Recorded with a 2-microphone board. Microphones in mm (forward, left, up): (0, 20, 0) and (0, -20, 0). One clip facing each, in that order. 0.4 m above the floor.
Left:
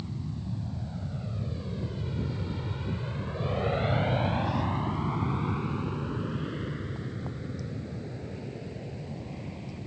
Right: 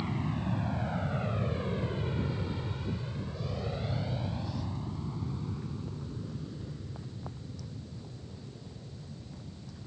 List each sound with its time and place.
0.0 s an aircraft: 65° right (ahead or behind); by 9.9 s 75° left (ahead or behind)